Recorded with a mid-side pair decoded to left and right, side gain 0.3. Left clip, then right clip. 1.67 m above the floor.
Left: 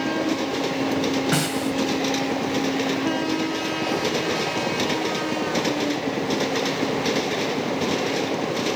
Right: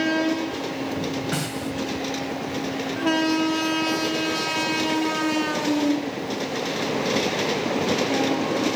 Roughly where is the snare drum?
Ahead left.